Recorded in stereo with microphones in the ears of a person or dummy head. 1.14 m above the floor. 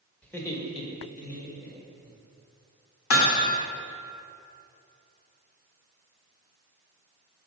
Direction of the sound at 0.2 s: 5° left (ahead or behind).